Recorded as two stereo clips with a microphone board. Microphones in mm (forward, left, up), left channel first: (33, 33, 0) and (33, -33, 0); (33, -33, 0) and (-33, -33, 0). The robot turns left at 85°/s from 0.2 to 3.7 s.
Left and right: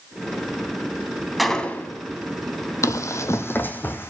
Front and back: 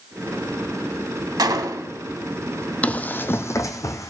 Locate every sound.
1.4 s a gunshot: straight behind, 0.6 m; by 2.0 s 125° left, 0.6 m
2.8 s running footsteps: 65° left, 0.6 m; by 4.1 s 35° left, 1.0 m